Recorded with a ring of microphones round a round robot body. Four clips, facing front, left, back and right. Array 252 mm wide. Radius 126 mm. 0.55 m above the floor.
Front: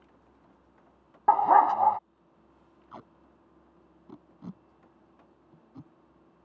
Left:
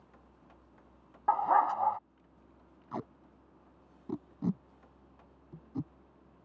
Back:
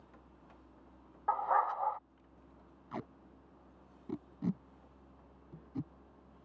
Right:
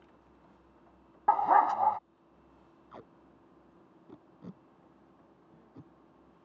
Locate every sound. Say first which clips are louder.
1.3 s a dog barking: right 3 dB, front 11 dB; 10° right
2.9 s tape being pulled: left 11 dB, back 4 dB; 110° left